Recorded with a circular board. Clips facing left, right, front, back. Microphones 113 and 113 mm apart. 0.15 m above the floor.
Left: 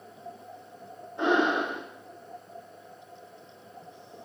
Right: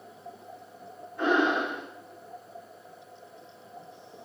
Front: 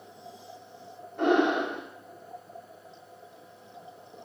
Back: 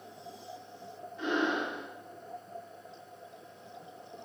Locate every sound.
1.2 s breathing: 25° left, 3.5 m